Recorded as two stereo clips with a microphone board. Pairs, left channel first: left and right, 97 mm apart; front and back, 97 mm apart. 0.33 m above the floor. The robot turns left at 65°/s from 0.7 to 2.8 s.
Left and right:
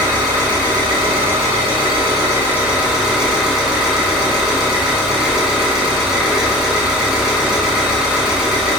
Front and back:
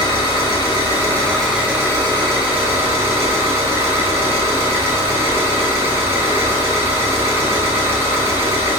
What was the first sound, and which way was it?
An engine running, 40° right.